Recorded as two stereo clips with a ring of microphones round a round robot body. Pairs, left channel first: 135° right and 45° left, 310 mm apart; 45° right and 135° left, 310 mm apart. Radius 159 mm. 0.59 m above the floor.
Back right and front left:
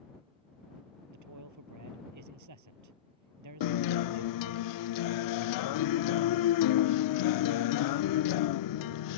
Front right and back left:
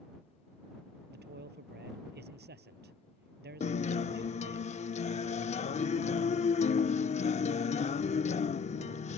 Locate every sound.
1.1 s a man speaking: 75° left
3.6 s a guitar: 115° right